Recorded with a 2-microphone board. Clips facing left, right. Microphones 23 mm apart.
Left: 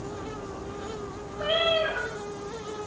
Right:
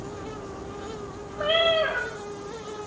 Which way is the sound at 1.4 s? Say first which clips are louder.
Right 3 dB; 85° right.